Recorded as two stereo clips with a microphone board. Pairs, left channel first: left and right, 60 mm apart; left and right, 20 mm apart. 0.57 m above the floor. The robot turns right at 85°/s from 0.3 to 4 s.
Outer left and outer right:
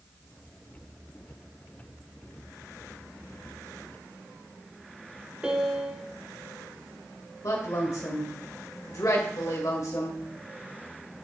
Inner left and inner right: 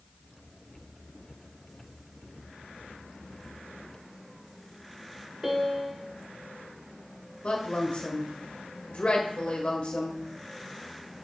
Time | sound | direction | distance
5.4 | a piano | 15° right (ahead or behind) | 1.0 m
7.4 | a woman speaking | 70° left (ahead or behind) | 1.7 m